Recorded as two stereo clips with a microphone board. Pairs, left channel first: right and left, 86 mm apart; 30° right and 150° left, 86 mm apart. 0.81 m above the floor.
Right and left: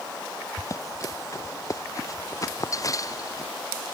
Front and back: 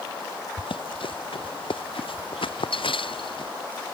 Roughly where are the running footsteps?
Ahead right.